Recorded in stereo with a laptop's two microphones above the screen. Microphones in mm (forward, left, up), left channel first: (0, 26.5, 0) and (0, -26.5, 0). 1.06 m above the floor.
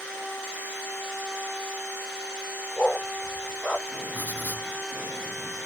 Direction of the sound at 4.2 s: 30° left (ahead or behind).